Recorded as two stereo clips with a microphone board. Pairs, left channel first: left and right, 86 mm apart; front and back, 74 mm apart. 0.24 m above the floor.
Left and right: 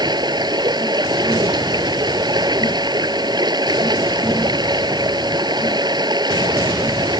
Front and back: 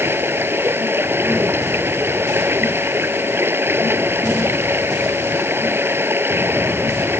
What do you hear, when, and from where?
0.0 s running water: 120° right